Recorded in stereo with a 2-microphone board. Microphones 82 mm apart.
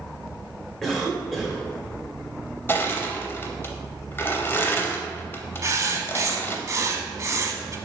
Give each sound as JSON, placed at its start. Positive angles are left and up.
{"t": 0.8, "sound": "a cough", "side_deg": 5, "distance_m": 1.1}
{"t": 2.7, "sound": "crushing", "side_deg": 30, "distance_m": 0.5}
{"t": 5.6, "sound": "writing", "side_deg": -40, "distance_m": 0.5}